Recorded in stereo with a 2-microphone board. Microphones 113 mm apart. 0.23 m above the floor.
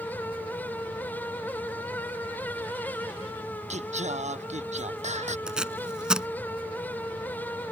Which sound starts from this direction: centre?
Tape being pulled, at 5.5 s.